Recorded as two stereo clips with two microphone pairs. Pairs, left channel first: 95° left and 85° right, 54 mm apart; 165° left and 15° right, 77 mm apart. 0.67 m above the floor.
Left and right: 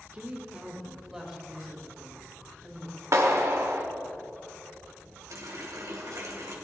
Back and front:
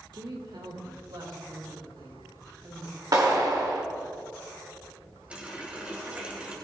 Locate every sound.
0.1 s a woman speaking: 25° right, 2 m; by 3.0 s 15° left, 5 m
3.1 s a clap: 55° right, 1.6 m
5.3 s a running tap: 90° right, 2.5 m